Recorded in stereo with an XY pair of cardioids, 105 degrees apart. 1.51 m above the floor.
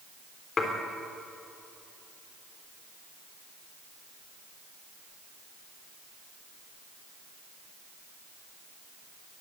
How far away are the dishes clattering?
About 3.5 m.